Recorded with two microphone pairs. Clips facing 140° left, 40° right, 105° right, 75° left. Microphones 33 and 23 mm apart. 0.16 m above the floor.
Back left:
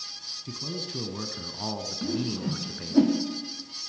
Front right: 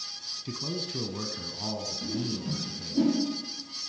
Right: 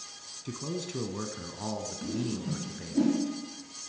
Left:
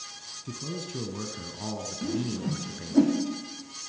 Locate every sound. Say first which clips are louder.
0.5 s a man speaking: front right 1 dB, right 1 dB; 75° right, 1.0 m; by 3.0 s 150° left, 1.5 m
2.0 s a whoosh: back left 5 dB, left 5 dB; 120° left, 4 m